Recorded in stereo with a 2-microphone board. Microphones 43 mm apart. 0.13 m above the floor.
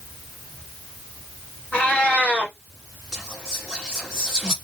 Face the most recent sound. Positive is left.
turn(degrees=-15)  # may be behind; listen again after turning